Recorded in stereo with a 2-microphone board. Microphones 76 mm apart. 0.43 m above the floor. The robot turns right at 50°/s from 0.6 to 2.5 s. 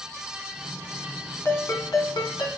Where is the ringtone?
40° left, 2.5 m; by 2.5 s 95° left, 2.5 m.